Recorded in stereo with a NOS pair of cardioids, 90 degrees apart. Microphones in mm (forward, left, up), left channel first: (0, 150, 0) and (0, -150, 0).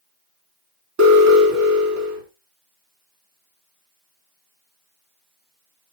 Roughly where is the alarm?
Ahead right.